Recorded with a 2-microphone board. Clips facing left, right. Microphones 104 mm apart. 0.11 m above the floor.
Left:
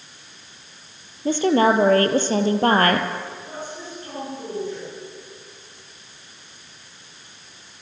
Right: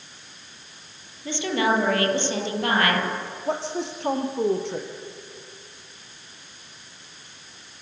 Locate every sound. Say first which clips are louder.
1.2 s a woman speaking: left 6 dB; 40° left (ahead or behind), 3 m
3.5 s a woman speaking: right 7 dB; 80° right, 5.5 m